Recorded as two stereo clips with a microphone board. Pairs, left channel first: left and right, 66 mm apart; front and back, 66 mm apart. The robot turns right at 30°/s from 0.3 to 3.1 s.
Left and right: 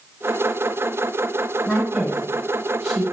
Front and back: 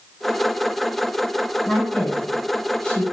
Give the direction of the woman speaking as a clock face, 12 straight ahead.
1 o'clock.